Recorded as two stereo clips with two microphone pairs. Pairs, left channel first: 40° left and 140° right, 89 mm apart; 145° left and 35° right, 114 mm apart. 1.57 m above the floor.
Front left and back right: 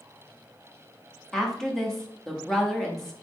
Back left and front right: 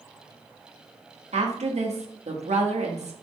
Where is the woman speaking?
45° right, 0.8 m.